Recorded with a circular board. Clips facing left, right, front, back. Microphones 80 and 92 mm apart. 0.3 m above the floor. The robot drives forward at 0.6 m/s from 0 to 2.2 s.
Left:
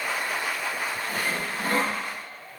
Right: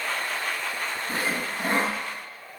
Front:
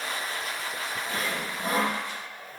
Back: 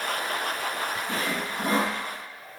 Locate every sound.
1.1 s sawing: 145° right, 0.7 m; by 2.0 s 160° right, 1.2 m